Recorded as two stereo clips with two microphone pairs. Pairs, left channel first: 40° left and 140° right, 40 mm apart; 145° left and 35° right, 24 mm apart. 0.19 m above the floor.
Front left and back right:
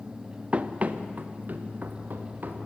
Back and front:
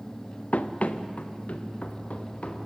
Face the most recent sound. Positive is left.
turn(degrees=180)